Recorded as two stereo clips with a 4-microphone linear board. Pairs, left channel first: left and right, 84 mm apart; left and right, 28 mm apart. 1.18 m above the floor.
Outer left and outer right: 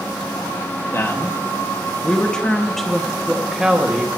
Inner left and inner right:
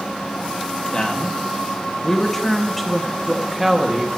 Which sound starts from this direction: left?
A man speaking, at 0.9 s.